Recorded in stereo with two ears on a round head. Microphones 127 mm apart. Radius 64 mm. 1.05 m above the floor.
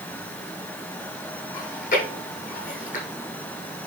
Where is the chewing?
55° left (ahead or behind), 7.5 m.